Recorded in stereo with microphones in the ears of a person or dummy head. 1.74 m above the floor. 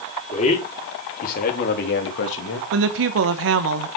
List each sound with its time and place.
0.3 s a man speaking: 35° left (ahead or behind), 4.5 m; by 2.6 s 75° left (ahead or behind), 2.5 m
2.7 s a woman speaking: 65° right (ahead or behind), 1.2 m